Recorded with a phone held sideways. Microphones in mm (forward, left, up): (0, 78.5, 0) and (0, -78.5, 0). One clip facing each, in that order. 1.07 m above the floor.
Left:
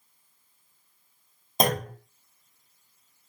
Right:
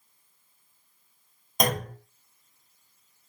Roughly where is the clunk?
Left.